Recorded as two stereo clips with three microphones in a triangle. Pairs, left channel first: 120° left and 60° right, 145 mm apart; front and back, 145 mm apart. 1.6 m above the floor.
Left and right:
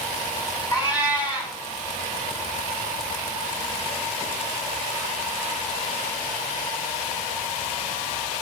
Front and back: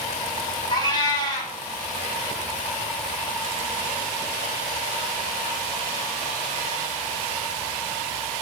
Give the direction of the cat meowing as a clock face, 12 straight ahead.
10 o'clock.